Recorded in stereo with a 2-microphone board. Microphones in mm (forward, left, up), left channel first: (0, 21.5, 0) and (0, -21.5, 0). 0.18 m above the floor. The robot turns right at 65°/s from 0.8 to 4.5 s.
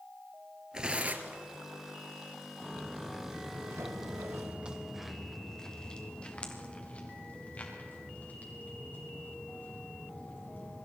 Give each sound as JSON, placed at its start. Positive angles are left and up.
{"t": 0.7, "sound": "tearing paper", "azimuth_deg": -160, "distance_m": 1.1}
{"t": 2.6, "sound": "footsteps", "side_deg": 35, "distance_m": 2.5}